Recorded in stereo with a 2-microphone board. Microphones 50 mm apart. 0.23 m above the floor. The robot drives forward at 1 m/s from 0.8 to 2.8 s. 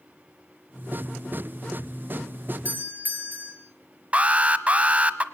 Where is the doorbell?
45° right (ahead or behind), 4.5 m; by 3.5 s 40° right (ahead or behind), 4.5 m.